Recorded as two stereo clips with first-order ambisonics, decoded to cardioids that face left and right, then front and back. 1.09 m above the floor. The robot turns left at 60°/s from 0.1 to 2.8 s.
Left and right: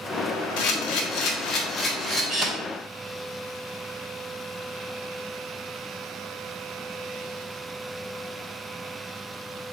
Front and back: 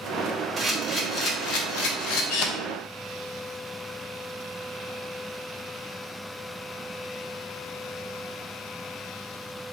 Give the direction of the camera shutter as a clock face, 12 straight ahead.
9 o'clock.